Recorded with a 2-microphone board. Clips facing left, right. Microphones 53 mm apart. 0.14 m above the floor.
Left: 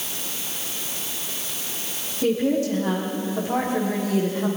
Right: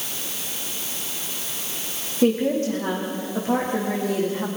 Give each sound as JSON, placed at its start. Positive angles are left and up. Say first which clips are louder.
{"t": 2.2, "sound": "a woman speaking", "louder": "right 1 dB", "side_deg": -40, "distance_m": 9.0}